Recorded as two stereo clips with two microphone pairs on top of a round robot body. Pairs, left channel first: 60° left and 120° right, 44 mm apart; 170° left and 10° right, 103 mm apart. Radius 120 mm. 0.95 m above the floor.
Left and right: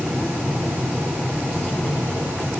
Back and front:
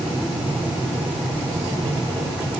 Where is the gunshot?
I don't hear a gunshot.